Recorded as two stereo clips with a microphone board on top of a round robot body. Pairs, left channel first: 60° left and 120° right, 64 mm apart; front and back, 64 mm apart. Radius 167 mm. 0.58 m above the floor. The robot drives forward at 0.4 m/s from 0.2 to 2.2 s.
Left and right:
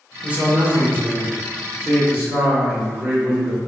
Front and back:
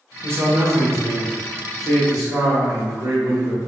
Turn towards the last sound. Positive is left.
turn(degrees=-175)